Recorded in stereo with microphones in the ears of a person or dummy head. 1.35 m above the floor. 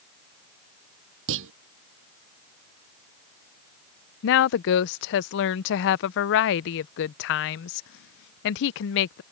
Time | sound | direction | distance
1.3 | a clunk | 75° right (ahead or behind) | ?
4.2 | a woman speaking | 65° left (ahead or behind) | ?